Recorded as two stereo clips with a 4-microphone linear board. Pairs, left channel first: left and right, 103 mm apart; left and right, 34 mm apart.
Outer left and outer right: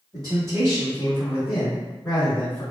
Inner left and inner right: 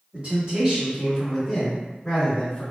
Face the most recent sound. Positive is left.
turn(degrees=20)  # may be behind; listen again after turning